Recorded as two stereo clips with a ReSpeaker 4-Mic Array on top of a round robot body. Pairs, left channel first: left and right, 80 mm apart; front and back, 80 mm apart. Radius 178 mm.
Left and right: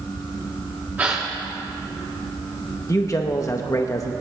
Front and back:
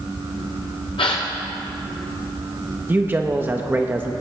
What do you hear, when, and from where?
1.0 s a gasp: 20° right, 0.8 m
2.9 s a man speaking: 125° left, 0.9 m